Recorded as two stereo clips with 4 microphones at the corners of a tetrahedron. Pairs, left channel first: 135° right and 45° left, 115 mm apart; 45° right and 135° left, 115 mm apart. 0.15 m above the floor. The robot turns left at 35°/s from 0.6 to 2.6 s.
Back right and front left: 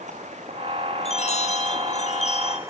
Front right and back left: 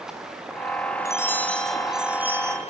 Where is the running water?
50° left, 5 m; by 2.7 s 20° right, 5 m.